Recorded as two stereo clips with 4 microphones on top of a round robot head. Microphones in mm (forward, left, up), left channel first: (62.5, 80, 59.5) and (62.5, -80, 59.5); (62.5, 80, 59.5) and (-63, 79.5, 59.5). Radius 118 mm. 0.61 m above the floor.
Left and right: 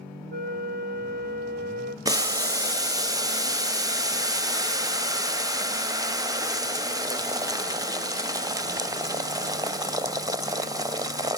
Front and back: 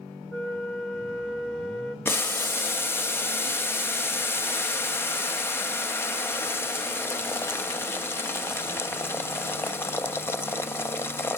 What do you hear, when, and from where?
0.3 s a flute: 75° right, 1.9 m
2.0 s boiling: 50° right, 0.8 m